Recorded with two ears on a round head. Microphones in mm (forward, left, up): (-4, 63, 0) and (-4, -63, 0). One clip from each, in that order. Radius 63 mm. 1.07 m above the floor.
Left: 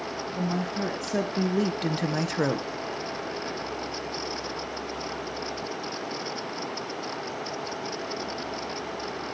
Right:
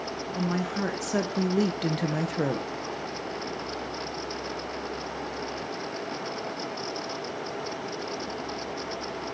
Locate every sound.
0.3 s a woman speaking: 30° right (ahead or behind), 1.6 m; by 2.7 s 50° left (ahead or behind), 0.7 m